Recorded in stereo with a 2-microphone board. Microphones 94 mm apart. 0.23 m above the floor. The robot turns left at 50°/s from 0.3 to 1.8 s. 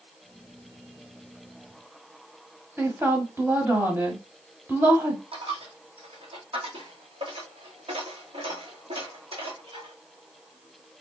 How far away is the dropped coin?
About 1.8 m.